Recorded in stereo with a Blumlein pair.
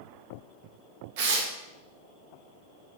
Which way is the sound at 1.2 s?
50° right.